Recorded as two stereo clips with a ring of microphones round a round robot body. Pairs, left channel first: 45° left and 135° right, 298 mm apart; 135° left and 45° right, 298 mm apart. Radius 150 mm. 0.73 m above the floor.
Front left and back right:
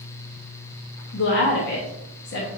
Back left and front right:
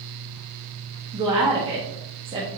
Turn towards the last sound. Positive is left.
turn(degrees=20)